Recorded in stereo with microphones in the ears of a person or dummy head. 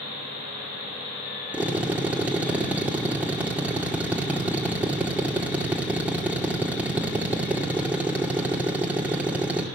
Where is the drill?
10° right (ahead or behind), 2 m.